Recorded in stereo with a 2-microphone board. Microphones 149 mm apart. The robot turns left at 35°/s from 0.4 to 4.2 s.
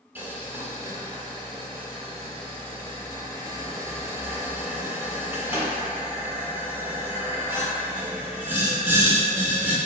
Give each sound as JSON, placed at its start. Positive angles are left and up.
{"t": 0.1, "sound": "boiling", "side_deg": -15, "distance_m": 1.0}